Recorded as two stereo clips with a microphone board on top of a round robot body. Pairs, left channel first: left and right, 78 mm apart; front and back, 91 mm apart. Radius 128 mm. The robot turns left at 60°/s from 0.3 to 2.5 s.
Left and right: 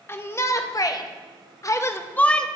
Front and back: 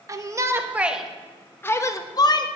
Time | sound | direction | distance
0.1 | a shout | 140° left | 0.7 m